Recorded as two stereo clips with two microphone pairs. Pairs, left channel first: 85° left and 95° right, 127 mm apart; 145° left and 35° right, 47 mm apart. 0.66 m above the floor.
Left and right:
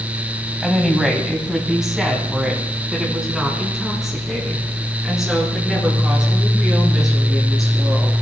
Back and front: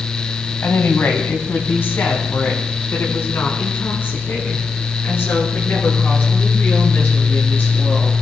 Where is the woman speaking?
Straight behind, 3 m.